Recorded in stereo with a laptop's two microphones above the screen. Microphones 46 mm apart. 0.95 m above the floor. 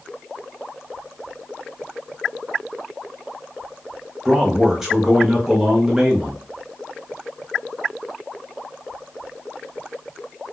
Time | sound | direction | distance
4.2 | a man speaking | 10° right (ahead or behind) | 0.6 m